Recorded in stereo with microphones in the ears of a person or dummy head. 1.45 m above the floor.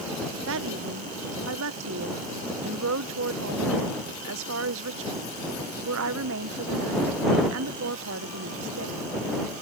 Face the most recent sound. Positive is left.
turn(degrees=-70)  # may be behind; listen again after turning